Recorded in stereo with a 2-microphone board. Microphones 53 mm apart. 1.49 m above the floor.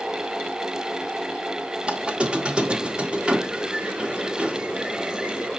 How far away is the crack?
I don't hear a crack.